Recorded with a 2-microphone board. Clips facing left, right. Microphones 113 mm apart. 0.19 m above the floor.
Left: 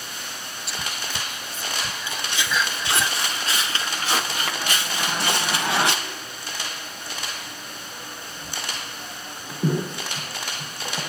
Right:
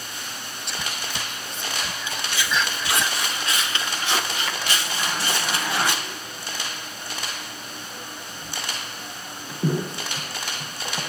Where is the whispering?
5° left (ahead or behind), 1.2 m.